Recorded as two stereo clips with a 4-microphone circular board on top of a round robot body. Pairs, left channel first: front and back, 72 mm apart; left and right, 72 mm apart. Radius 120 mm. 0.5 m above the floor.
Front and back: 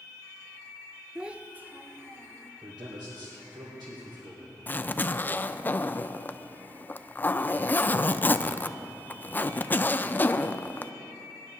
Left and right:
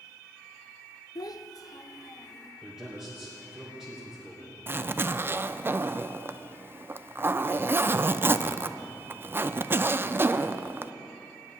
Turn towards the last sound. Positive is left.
turn(degrees=-50)